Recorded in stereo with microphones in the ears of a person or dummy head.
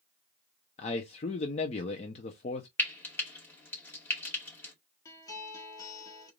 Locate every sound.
0.8 s a man speaking: 30° left (ahead or behind), 0.6 m
2.8 s frying: 10° left (ahead or behind), 2 m
5.0 s a guitar: 20° left (ahead or behind), 1.3 m